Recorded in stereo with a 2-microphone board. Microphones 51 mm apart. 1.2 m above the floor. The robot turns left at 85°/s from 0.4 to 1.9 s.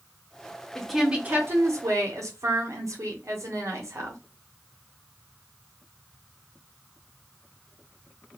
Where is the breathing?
I don't hear breathing.